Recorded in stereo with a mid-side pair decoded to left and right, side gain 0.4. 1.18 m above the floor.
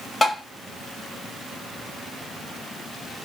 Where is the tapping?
30° left, 1.8 m.